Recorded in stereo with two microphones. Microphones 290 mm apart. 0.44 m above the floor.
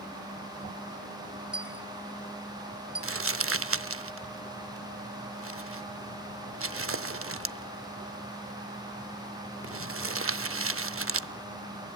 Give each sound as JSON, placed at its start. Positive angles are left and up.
{"t": 1.5, "sound": "a dropped coin", "side_deg": -5, "distance_m": 1.2}
{"t": 3.0, "sound": "crumpling", "side_deg": -50, "distance_m": 0.6}